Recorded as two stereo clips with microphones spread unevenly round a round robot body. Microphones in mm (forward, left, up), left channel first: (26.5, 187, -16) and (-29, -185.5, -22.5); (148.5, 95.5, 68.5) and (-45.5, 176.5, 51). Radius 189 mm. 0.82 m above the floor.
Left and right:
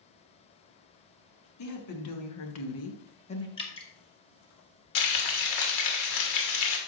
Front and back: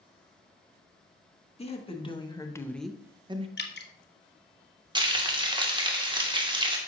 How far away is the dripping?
About 1.2 m.